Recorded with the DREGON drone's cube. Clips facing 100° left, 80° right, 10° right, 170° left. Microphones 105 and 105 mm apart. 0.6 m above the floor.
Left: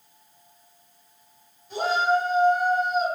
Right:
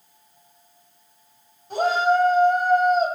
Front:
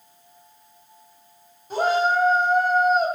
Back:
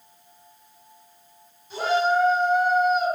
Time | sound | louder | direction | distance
1.7 | a shout | right 3 dB, front 1 dB | 50° right | 2.5 m